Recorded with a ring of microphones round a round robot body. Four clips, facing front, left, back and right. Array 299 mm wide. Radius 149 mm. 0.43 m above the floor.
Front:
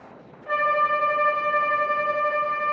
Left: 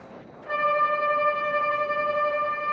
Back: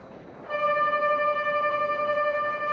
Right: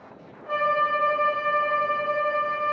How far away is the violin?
About 1.3 m.